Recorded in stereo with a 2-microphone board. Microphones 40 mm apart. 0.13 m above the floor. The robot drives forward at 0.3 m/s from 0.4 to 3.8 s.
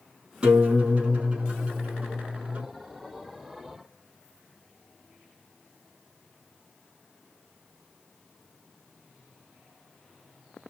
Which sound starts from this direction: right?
A guitar, at 0.4 s.